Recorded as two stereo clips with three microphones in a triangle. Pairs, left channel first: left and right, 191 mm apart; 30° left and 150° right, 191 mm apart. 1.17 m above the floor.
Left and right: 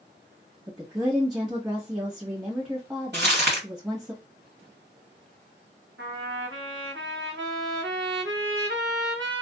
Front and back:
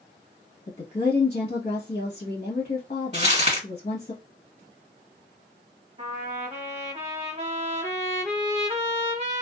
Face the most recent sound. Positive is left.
turn(degrees=-90)